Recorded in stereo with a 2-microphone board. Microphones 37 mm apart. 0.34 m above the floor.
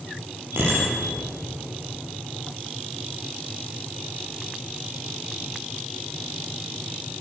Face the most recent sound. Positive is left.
turn(degrees=-70)  # may be behind; listen again after turning